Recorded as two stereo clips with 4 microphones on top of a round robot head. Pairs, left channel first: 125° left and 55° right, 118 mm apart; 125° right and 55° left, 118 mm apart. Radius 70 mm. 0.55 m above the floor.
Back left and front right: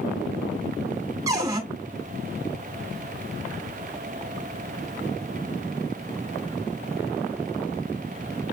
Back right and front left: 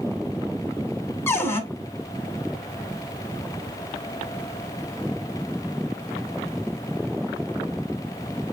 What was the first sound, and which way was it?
A cupboard door, 75° right.